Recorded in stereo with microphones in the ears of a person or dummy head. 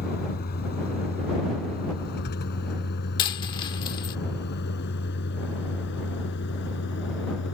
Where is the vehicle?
50° left (ahead or behind); by 7.6 s 65° left (ahead or behind).